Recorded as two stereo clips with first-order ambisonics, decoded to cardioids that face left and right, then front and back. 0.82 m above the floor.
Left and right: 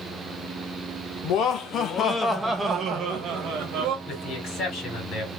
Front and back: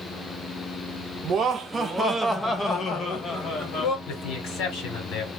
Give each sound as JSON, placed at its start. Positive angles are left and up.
{"t": 1.2, "sound": "laughter", "azimuth_deg": 120, "distance_m": 0.9}
{"t": 4.1, "sound": "a man speaking", "azimuth_deg": 40, "distance_m": 2.0}